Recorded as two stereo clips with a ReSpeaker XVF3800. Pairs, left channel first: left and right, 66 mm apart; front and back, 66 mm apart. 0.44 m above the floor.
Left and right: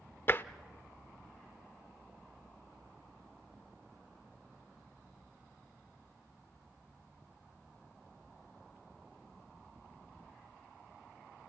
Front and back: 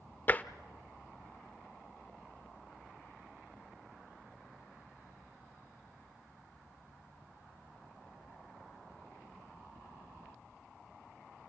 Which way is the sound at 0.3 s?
45° left.